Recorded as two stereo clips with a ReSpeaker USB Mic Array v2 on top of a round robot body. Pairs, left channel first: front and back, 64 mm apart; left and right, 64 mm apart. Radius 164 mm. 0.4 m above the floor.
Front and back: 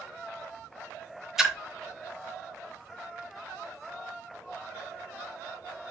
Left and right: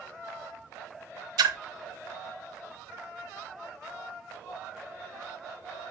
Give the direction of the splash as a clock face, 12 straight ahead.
3 o'clock.